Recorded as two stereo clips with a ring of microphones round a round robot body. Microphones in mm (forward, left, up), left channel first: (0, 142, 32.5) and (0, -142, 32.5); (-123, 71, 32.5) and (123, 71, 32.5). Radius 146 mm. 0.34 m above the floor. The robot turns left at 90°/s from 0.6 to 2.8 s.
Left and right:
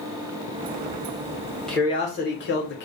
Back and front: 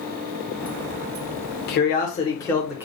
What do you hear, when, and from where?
1.7 s a man speaking: 175° left, 1.1 m; by 2.9 s 75° left, 1.1 m